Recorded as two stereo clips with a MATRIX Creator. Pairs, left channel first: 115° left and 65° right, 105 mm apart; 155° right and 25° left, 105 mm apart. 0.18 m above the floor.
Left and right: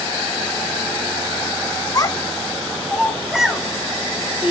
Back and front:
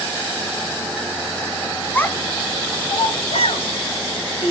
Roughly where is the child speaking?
Behind left.